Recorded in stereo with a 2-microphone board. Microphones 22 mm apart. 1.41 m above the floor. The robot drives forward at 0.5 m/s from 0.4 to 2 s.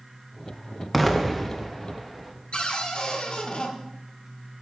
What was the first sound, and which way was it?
An explosion, 10° left (ahead or behind).